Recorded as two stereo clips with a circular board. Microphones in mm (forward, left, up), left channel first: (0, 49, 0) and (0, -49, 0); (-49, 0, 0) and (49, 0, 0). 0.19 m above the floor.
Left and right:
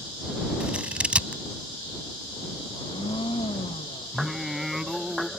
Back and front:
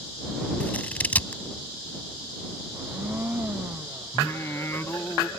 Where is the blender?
70° left.